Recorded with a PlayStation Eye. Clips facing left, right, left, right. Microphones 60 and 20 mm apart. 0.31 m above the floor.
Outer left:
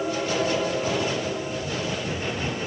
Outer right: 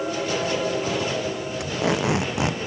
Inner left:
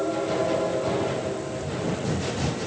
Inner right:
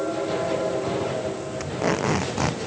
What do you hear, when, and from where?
1.6 s tape being pulled: 85° right